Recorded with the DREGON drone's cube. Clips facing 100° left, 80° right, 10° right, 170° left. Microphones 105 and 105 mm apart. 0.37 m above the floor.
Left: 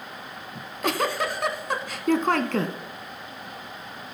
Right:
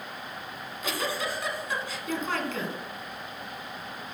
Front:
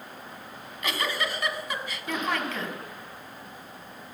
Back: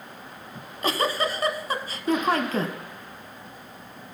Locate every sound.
0.6 s a giggle: 120° left, 0.8 m